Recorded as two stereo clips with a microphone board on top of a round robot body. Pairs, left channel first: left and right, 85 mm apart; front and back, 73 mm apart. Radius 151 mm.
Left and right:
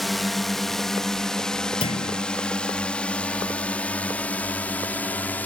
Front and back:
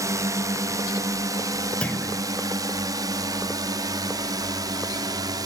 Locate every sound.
0.0 s a drone: straight behind; by 5.5 s 160° left
1.8 s a clunk: 75° left